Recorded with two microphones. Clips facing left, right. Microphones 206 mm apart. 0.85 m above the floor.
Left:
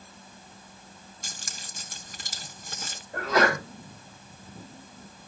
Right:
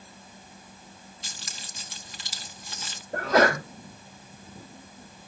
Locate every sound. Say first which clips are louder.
1.2 s keys jangling: left 1 dB; 50° left (ahead or behind), 0.9 m
3.1 s a sneeze: right 3 dB; 50° right (ahead or behind), 3.5 m